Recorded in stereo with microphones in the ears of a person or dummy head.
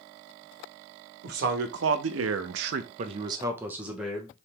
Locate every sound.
1.2 s a man speaking: 55° right (ahead or behind), 1.0 m; by 4.3 s 5° left (ahead or behind), 1.1 m